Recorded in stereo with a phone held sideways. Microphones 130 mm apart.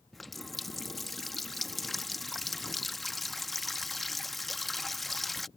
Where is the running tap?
Centre (ahead or behind).